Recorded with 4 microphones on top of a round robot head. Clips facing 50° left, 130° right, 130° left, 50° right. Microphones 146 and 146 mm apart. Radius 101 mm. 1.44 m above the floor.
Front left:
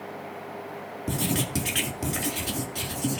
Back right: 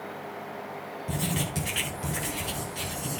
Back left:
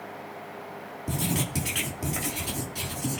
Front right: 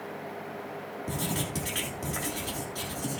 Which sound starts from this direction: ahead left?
Writing, at 1.1 s.